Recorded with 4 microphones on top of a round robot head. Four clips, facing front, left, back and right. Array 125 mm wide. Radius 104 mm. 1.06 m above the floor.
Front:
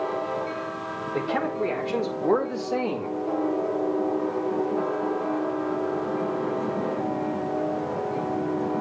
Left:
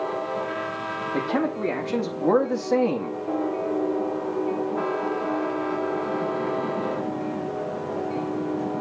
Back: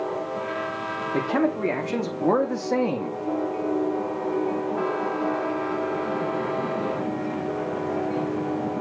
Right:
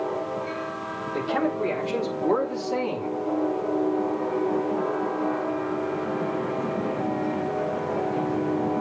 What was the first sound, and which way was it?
A man speaking, 145° left.